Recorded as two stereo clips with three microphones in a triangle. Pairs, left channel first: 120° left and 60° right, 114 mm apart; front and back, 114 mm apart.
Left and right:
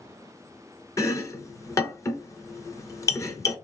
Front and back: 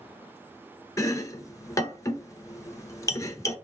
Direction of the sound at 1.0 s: 60° left.